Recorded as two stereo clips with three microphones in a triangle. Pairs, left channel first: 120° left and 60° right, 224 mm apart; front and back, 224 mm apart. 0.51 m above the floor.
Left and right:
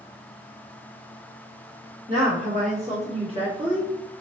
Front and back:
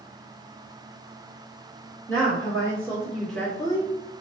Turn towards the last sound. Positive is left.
turn(degrees=-15)